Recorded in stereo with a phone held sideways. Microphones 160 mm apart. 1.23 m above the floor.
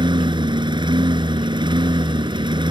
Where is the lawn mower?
30° right (ahead or behind).